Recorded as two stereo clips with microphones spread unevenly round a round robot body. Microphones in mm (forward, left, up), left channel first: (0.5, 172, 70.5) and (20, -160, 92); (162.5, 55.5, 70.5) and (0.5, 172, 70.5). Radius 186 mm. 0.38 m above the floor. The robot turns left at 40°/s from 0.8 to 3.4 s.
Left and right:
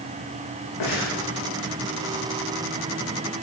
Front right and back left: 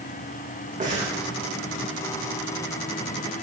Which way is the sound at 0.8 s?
100° left.